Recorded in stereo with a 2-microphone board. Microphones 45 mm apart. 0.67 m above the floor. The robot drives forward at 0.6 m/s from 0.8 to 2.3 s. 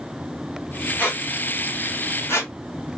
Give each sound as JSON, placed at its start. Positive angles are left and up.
{"t": 1.0, "sound": "a squeak", "side_deg": 50, "distance_m": 0.9}